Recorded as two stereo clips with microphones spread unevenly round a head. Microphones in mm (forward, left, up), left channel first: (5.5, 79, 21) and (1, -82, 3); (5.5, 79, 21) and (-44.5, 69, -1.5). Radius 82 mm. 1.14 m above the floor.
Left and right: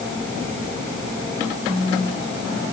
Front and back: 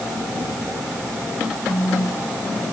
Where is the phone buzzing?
25° right, 4.5 m.